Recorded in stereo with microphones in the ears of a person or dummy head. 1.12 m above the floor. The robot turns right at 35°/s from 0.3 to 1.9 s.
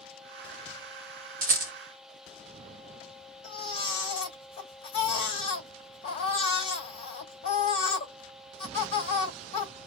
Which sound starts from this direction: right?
A rattle, at 1.4 s.